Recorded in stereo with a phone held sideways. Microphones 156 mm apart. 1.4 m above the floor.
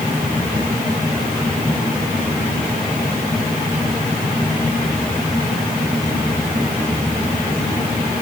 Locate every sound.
Only background noise.